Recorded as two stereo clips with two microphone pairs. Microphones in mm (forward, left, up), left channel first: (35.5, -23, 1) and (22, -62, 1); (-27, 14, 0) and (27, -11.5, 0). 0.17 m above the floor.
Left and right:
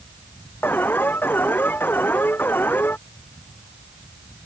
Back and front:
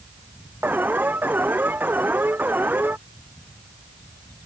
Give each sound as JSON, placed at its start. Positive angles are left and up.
{"t": 0.6, "sound": "an alarm", "azimuth_deg": 35}